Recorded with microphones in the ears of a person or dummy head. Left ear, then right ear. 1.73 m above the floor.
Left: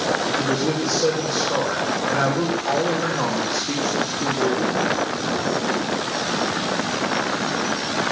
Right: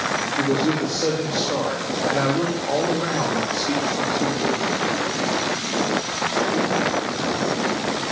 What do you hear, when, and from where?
0.4 s a man speaking: 5° right (ahead or behind), 2.5 m